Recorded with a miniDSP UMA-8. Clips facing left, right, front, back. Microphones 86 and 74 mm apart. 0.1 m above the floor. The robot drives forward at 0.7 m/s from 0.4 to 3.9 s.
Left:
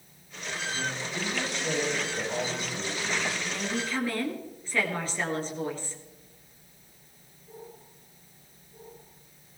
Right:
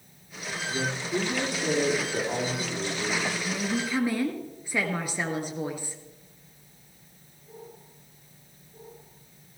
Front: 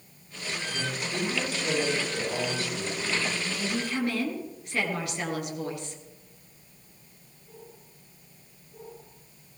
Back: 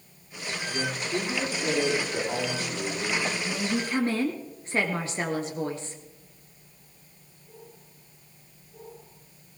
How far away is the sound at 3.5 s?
About 1.7 m.